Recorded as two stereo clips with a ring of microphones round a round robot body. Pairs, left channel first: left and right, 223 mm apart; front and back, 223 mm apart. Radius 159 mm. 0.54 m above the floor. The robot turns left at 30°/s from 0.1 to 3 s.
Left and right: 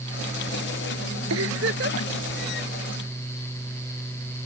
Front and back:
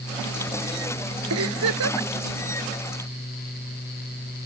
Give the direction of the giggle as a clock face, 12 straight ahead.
5 o'clock.